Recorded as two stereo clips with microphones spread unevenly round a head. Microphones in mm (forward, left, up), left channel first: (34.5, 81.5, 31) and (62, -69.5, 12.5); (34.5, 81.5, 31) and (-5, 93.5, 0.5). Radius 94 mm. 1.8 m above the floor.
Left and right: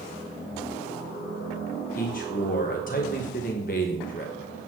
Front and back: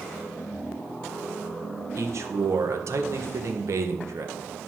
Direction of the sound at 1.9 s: 150° left.